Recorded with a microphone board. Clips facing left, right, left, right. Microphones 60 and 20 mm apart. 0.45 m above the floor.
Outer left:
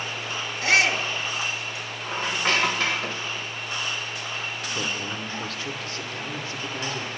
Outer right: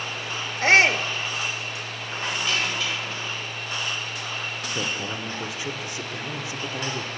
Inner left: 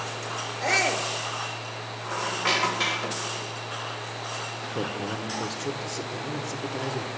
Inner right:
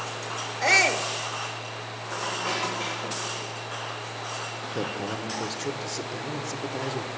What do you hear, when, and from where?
0.6 s a shout: 40° right (ahead or behind), 1.1 m
2.1 s a squeak: 50° left (ahead or behind), 1.3 m
4.6 s a man speaking: 15° right (ahead or behind), 0.9 m